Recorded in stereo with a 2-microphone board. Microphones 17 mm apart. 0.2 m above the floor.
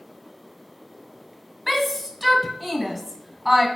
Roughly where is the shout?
Centre.